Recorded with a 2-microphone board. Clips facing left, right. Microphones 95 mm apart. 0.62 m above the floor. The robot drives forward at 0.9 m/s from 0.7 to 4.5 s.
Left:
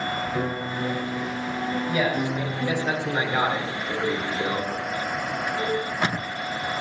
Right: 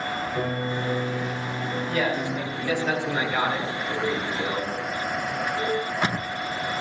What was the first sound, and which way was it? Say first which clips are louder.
A piano: even; 30° left (ahead or behind).